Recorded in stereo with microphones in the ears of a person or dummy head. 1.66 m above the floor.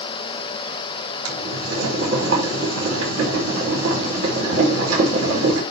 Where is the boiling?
85° right, 5.5 m.